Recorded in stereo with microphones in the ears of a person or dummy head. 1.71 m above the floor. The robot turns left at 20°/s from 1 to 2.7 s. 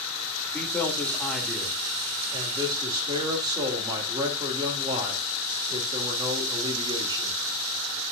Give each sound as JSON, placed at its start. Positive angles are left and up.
{"t": 0.5, "sound": "a man speaking", "azimuth_deg": 5, "distance_m": 2.5}